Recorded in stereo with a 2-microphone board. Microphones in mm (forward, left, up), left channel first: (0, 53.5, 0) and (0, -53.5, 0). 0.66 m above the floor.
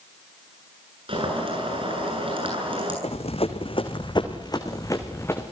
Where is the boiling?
55° right (ahead or behind), 9 m.